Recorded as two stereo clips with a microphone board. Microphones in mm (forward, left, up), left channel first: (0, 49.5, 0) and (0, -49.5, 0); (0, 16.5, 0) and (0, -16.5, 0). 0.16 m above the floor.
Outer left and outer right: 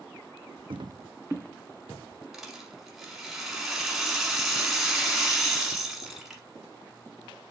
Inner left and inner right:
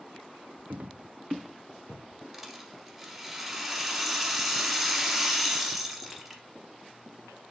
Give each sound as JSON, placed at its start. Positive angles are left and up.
{"t": 0.7, "sound": "footsteps", "side_deg": -70, "distance_m": 0.6}
{"t": 2.3, "sound": "a rattle", "side_deg": -5, "distance_m": 1.0}